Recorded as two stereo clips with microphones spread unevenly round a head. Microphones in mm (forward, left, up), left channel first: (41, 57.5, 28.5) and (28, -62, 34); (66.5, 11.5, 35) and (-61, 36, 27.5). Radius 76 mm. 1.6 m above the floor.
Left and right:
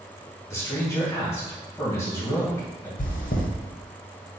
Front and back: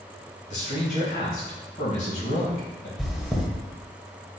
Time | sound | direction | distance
0.5 | a man speaking | 15° left | 2 m
3.0 | chewing | 80° left | 0.9 m